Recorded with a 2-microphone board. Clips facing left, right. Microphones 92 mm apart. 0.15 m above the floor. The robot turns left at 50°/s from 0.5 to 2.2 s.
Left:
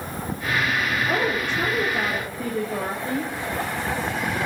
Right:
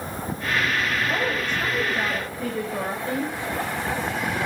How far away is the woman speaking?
About 4.5 m.